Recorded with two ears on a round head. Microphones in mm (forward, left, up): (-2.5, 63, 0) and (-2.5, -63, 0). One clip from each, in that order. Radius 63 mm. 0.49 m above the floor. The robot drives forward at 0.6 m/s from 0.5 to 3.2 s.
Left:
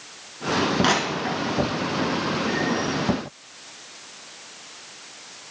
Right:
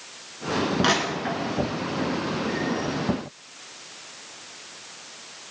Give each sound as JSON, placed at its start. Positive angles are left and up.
{"t": 0.8, "sound": "crushing", "side_deg": 5, "distance_m": 2.0}